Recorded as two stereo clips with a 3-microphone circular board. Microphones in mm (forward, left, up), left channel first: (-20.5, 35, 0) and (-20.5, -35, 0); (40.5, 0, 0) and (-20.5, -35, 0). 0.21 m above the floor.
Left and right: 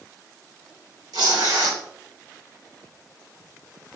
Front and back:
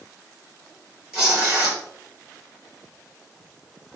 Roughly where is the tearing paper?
Ahead right.